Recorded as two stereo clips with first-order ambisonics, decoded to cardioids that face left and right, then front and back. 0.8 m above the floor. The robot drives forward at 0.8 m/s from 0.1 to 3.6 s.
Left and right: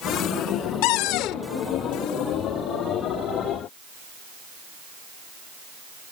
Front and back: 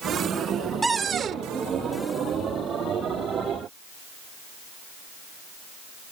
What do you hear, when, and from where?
0.8 s a cupboard door: 100° left; by 1.4 s 125° left